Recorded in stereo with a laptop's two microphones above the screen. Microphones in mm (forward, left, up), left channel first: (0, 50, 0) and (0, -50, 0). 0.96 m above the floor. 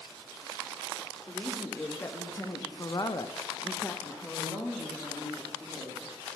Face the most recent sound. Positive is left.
turn(degrees=-5)  # may be behind; listen again after turning